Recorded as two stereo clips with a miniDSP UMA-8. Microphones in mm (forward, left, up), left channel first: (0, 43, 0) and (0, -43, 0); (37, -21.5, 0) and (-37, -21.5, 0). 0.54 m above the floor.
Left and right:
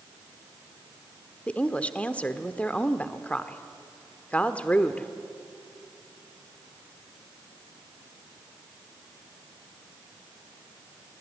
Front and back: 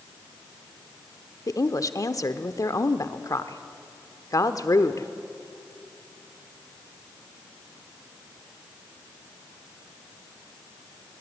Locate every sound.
1.5 s a woman speaking: 20° left, 1.1 m